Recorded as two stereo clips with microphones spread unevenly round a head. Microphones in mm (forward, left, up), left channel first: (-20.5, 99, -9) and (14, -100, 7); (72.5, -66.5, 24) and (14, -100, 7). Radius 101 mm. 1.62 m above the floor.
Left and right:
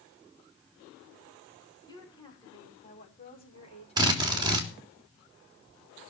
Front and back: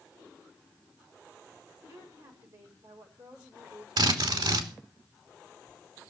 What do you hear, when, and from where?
1.9 s a woman speaking: 170° left, 6.5 m; by 4.7 s 155° left, 4.5 m
4.0 s a drill: 150° right, 3.5 m